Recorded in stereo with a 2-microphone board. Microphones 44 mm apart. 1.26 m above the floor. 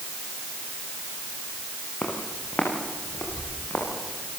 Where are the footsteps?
35° left (ahead or behind), 7.5 m; by 4.3 s 40° left (ahead or behind), 10 m.